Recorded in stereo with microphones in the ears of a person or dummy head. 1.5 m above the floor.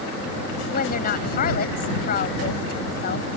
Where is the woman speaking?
60° left (ahead or behind).